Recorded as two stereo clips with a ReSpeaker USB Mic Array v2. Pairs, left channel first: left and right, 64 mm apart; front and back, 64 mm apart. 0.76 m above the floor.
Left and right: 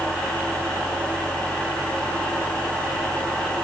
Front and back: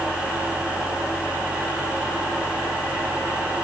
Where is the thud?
No thud in this recording.